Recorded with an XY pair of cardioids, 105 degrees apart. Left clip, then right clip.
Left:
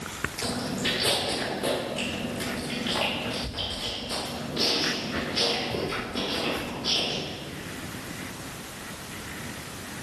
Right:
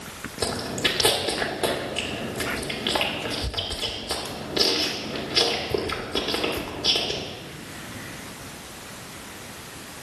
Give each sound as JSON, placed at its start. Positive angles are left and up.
{"t": 0.4, "sound": "chewing", "azimuth_deg": -65, "distance_m": 2.0}